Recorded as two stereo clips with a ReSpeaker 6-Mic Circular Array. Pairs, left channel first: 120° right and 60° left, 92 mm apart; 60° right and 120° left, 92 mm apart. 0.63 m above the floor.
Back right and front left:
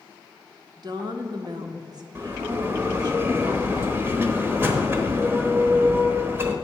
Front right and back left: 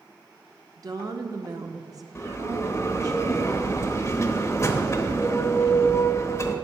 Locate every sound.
0.8 s a woman speaking: 85° left, 0.9 m
2.1 s a bell: 5° right, 0.9 m